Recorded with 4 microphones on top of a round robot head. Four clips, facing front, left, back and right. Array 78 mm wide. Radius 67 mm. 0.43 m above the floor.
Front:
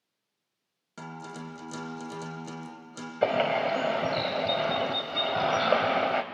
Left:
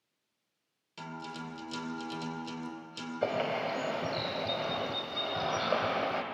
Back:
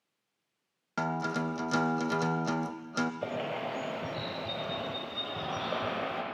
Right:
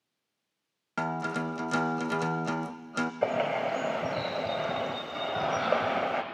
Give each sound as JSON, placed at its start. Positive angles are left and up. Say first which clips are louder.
{"t": 1.0, "sound": "a guitar", "louder": "right 11 dB, back 9 dB", "azimuth_deg": -125, "distance_m": 0.7}
{"t": 3.2, "sound": "a bird", "louder": "right 2 dB, front 9 dB", "azimuth_deg": -20, "distance_m": 1.4}